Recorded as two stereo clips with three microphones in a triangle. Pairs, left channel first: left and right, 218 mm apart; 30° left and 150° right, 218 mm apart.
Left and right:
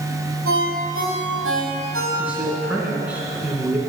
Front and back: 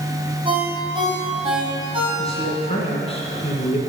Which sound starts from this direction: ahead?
A man speaking, at 2.2 s.